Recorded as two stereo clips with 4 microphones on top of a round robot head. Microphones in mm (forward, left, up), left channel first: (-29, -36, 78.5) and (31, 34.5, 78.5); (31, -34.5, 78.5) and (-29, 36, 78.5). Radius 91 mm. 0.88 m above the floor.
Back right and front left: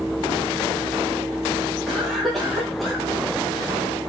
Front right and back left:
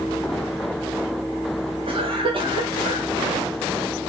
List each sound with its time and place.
1.9 s a cough: 140° left, 1.5 m